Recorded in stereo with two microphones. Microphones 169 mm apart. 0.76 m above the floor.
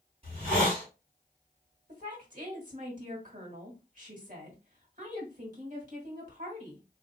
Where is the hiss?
35° right (ahead or behind), 2.5 m.